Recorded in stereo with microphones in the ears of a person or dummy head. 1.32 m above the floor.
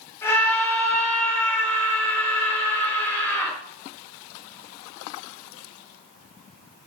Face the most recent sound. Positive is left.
turn(degrees=15)  # may be behind; listen again after turning